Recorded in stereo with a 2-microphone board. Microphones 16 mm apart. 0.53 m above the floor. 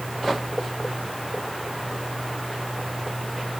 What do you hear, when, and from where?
Only background noise.